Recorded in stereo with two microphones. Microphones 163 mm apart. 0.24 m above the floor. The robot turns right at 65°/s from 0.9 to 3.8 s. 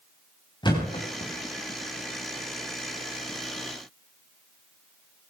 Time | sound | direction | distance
0.6 | a thud | 30° left (ahead or behind) | 5 m